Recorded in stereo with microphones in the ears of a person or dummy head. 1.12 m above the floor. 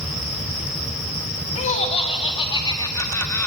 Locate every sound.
1.6 s laughter: 30° left (ahead or behind), 2.5 m; by 3.5 s 5° left (ahead or behind), 1.7 m